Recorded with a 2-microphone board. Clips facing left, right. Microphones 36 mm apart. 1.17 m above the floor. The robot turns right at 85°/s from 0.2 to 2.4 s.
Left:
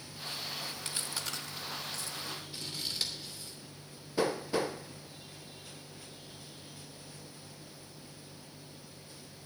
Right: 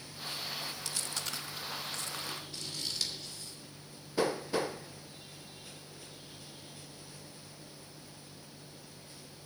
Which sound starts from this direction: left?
Chewing, at 0.8 s.